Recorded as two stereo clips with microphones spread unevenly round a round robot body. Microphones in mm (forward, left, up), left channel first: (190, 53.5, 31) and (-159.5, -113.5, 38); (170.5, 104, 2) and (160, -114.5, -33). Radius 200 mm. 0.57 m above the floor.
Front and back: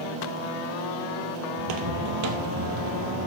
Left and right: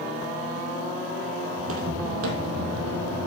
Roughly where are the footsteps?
Behind right.